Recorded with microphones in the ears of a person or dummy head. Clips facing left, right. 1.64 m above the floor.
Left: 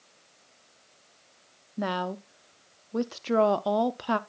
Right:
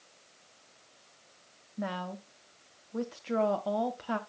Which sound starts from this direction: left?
A woman speaking, at 1.8 s.